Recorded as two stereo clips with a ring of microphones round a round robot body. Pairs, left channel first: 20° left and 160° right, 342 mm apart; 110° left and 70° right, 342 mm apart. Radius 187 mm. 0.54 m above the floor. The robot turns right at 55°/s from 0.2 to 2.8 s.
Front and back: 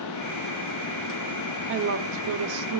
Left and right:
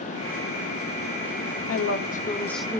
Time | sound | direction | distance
1.7 | a woman speaking | 150° left | 1.5 m